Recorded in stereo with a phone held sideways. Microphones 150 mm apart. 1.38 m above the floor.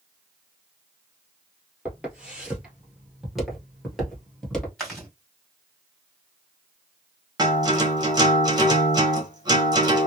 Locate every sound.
1.9 s footsteps: 10° right (ahead or behind), 1.6 m; by 4.7 s 5° left (ahead or behind), 1.5 m
4.8 s chewing: centre (ahead or behind), 1.5 m
7.4 s a guitar: 25° right (ahead or behind), 1.0 m